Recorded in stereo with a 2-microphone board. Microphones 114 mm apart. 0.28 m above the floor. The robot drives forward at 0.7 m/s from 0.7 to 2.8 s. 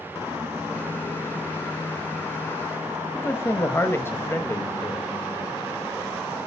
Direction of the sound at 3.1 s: 20° left (ahead or behind).